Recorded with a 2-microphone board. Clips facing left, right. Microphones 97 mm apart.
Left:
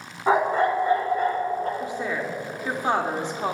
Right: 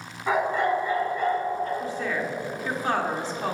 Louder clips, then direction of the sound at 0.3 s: Left 3 dB; 35° left (ahead or behind).